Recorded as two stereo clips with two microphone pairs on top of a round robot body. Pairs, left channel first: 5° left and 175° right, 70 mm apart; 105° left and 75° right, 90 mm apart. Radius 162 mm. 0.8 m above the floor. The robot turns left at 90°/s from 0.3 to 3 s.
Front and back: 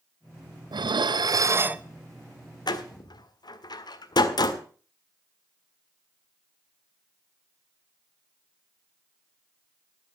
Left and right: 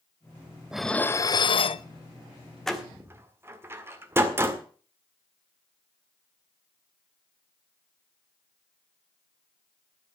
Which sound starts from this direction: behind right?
Dishes clattering, at 0.7 s.